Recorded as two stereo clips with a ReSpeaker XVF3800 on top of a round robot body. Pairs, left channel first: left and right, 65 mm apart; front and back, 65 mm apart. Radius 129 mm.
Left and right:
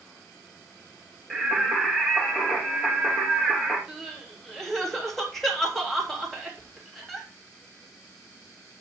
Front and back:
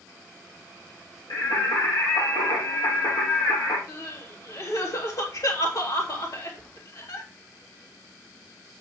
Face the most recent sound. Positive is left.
turn(degrees=5)